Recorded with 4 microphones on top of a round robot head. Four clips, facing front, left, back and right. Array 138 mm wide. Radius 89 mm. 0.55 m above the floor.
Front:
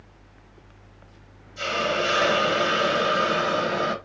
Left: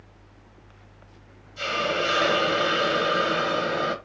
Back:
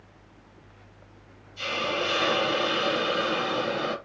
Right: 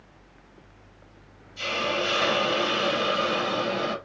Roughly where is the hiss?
Ahead left.